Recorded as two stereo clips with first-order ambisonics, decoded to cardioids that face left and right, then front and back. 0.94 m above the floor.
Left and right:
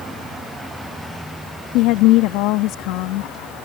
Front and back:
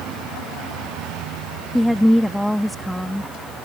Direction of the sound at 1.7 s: 90° left.